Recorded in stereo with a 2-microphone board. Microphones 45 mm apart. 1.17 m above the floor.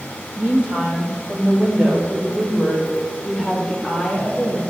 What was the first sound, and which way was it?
A woman speaking, 35° right (ahead or behind).